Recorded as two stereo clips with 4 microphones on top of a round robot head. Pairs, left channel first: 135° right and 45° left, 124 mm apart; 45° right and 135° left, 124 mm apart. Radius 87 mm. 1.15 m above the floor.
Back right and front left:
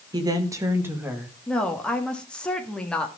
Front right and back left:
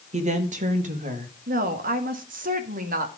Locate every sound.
0.1 s a woman speaking: 105° left, 2 m; by 1.4 s 125° left, 2 m
1.5 s a woman speaking: 145° left, 2 m